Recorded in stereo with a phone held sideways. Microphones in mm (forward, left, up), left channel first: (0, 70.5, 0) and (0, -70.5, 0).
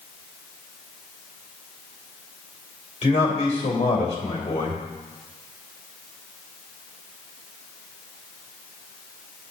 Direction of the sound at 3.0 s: 45° left (ahead or behind).